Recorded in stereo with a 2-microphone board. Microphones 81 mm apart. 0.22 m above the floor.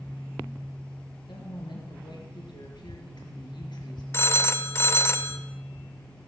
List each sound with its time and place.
1.3 s a woman speaking: 65° left (ahead or behind), 4 m
4.1 s a phone ringing: 30° left (ahead or behind), 0.8 m